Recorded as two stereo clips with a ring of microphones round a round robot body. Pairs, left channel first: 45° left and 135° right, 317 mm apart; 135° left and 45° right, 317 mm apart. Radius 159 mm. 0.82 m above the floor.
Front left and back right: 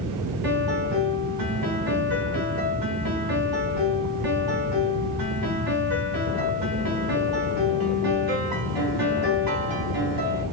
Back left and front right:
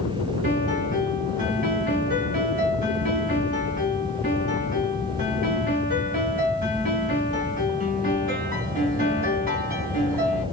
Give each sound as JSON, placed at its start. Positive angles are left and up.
{"t": 0.4, "sound": "a piano", "azimuth_deg": -110, "distance_m": 3.0}